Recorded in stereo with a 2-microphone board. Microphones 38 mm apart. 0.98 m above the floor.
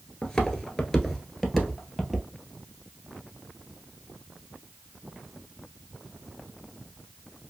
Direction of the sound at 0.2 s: 10° left (ahead or behind).